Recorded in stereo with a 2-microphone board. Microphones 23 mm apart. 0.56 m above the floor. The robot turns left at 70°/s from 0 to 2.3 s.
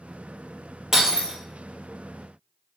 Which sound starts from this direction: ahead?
Breaking glass, at 0.9 s.